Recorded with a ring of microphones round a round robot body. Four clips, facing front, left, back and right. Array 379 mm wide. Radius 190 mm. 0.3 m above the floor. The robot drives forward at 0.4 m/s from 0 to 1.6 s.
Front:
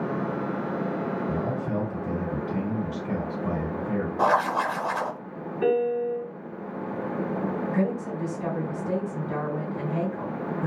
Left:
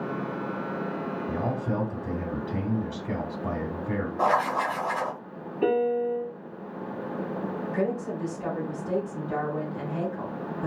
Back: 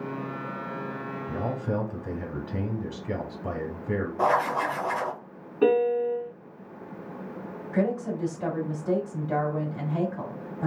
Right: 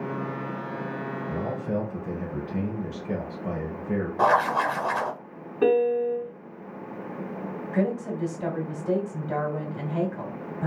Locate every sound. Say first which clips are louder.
1.3 s a man speaking: even, front 2 dB; 125° left, 1.8 m; by 4.1 s 130° left, 1.9 m
4.2 s writing: right 3 dB, front 2 dB; 65° right, 0.9 m
5.6 s a piano: right 3 dB, back 2 dB; 135° right, 1.7 m
7.7 s a woman speaking: right 3 dB, even; 145° right, 2.5 m